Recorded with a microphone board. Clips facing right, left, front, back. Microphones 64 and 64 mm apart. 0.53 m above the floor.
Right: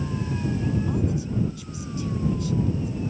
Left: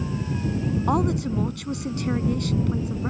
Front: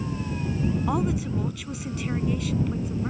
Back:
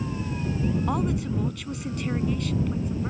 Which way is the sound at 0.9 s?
85° left.